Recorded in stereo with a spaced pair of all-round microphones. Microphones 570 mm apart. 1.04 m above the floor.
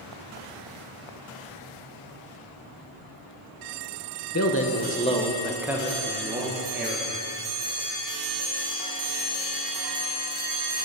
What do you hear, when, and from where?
4.3 s a man speaking: 30° left (ahead or behind), 0.7 m; by 7.1 s 20° right (ahead or behind), 1.4 m